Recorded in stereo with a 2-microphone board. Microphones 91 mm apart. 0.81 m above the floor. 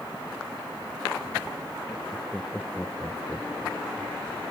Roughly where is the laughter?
Centre.